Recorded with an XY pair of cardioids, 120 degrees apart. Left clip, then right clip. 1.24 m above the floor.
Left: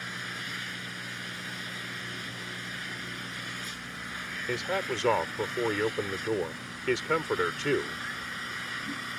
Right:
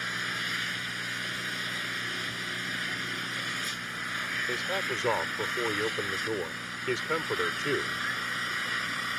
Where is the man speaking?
20° left.